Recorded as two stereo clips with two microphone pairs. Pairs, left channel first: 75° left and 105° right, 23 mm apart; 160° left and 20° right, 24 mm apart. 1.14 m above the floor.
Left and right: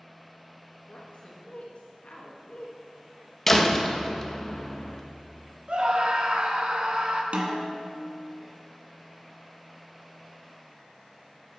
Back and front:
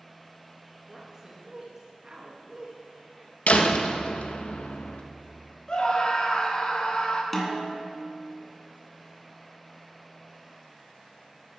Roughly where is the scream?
Behind right.